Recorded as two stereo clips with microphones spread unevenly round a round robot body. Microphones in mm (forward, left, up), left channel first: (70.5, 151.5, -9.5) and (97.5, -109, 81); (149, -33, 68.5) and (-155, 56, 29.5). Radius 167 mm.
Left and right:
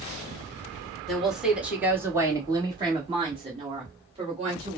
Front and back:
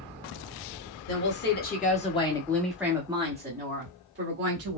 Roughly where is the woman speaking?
Ahead left.